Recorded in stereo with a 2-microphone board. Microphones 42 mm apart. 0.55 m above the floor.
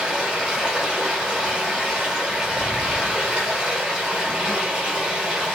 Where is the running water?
25° right (ahead or behind), 1.1 m.